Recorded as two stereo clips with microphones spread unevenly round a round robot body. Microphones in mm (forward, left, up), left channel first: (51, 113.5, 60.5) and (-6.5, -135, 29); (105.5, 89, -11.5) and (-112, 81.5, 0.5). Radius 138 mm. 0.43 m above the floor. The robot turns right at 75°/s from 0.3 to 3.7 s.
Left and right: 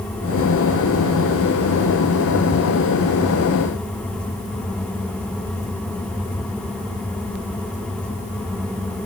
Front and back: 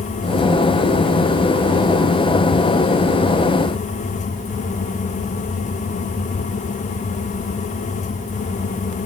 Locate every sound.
Only background noise.